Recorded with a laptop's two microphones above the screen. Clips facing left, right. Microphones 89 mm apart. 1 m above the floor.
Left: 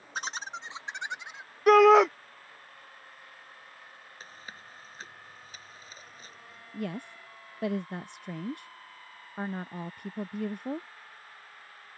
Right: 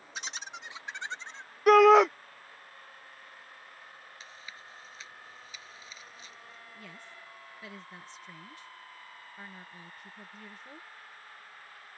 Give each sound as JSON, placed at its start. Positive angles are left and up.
{"t": 0.1, "sound": "laughter", "side_deg": 50}
{"t": 1.7, "sound": "a shout", "side_deg": 0}
{"t": 4.2, "sound": "chewing", "side_deg": 45}
{"t": 6.7, "sound": "a woman speaking", "side_deg": 60}